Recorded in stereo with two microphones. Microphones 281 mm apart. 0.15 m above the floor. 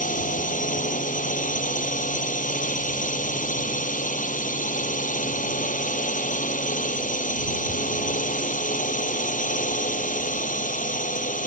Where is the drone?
30° left (ahead or behind).